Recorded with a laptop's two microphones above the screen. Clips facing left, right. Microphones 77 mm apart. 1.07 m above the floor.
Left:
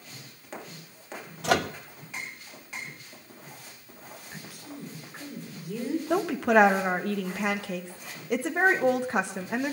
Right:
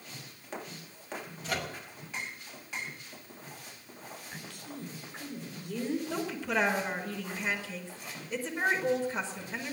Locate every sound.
1.4 s a microwave: 80° left, 0.9 m
4.3 s a woman speaking: 10° left (ahead or behind), 3 m
6.1 s a woman speaking: 65° left (ahead or behind), 1.3 m